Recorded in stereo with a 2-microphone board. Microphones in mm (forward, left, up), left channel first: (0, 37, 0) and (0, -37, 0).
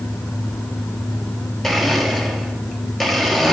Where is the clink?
No clink in this recording.